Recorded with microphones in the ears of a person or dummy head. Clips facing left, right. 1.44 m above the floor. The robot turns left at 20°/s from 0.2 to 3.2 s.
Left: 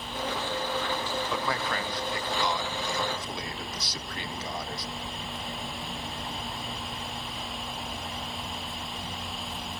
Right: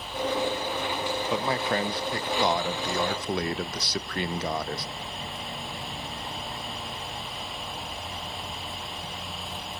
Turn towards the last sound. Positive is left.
turn(degrees=-55)